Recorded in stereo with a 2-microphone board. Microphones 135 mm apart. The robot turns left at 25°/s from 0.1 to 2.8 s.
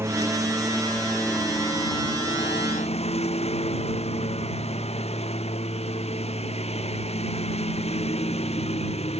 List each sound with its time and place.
0.0 s a lawn mower: 165° right; by 9.2 s 130° left